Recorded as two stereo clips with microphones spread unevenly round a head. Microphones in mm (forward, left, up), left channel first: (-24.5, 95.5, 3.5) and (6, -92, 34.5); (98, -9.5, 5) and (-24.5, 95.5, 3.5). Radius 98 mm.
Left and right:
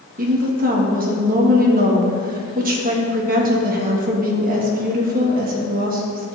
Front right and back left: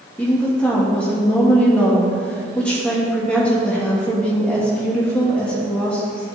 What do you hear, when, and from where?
0.2 s a woman speaking: 125° right, 2 m